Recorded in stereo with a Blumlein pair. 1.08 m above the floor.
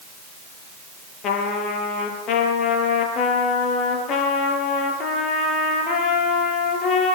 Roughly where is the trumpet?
Ahead left.